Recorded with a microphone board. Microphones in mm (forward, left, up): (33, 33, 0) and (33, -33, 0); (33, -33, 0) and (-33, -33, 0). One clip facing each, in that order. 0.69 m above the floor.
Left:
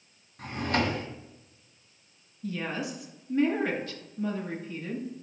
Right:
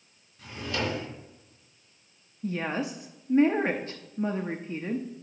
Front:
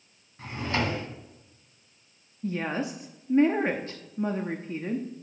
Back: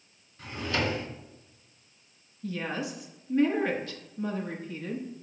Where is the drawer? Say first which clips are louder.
Left 4 dB, front 1 dB; 55° left, 2.0 m.